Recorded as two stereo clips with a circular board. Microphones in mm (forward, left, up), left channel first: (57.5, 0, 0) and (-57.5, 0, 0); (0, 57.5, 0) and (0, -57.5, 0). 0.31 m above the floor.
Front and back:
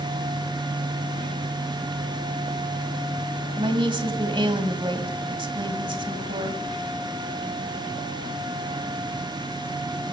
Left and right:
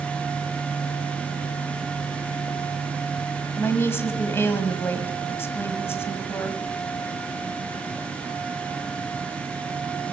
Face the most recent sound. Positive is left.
turn(degrees=155)